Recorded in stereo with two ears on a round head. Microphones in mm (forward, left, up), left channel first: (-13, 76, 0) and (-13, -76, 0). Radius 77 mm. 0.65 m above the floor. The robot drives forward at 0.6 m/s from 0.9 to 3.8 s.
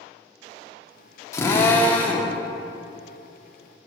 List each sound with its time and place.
1.3 s a drill: 15° left (ahead or behind), 0.8 m; by 2.3 s 10° left (ahead or behind), 1.3 m